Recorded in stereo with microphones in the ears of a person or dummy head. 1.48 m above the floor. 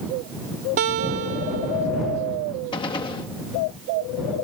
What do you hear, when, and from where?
0.8 s a guitar: 30° right (ahead or behind)
2.7 s a gunshot: 30° left (ahead or behind)